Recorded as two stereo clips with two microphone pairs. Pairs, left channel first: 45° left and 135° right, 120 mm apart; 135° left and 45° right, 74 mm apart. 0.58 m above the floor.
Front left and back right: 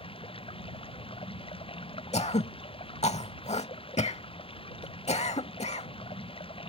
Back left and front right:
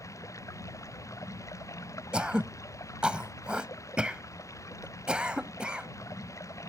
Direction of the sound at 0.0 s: 85° left.